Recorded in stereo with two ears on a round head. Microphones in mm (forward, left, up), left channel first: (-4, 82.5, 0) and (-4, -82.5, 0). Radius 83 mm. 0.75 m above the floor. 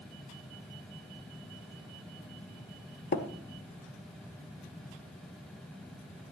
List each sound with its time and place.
3.1 s tapping: 55° left (ahead or behind), 1.5 m